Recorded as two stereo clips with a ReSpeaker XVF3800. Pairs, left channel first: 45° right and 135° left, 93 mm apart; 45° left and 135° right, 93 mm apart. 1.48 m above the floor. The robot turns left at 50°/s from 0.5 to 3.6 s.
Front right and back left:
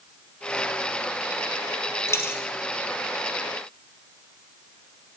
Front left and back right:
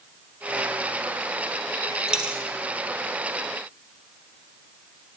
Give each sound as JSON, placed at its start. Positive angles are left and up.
{"t": 2.1, "sound": "a dropped coin", "azimuth_deg": -60, "distance_m": 1.6}